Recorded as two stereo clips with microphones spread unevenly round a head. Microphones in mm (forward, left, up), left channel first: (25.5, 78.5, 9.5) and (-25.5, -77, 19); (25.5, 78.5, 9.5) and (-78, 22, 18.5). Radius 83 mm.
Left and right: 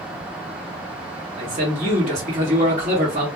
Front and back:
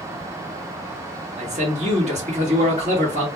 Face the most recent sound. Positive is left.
turn(degrees=-145)